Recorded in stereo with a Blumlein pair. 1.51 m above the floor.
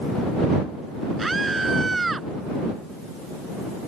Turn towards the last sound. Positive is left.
turn(degrees=-10)